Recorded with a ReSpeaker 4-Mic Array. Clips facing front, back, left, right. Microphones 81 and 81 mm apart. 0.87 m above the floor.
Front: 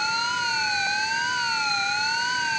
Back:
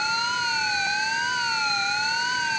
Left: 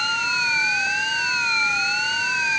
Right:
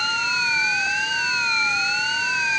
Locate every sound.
Only background noise.